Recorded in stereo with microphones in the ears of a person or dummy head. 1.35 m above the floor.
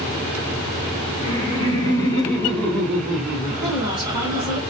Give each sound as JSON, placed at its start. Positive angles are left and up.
{"t": 1.2, "sound": "laughter", "side_deg": 30, "distance_m": 1.7}
{"t": 3.6, "sound": "a woman speaking", "side_deg": 0, "distance_m": 1.8}